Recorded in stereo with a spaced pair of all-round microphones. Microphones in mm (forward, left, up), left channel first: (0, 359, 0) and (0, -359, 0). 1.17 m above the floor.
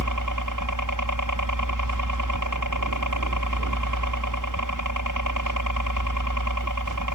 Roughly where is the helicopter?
Right.